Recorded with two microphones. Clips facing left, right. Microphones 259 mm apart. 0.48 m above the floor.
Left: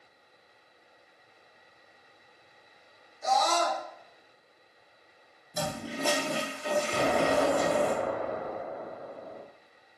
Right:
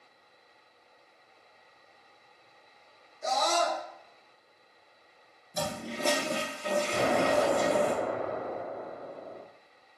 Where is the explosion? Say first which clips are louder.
Even; centre (ahead or behind), 0.5 m.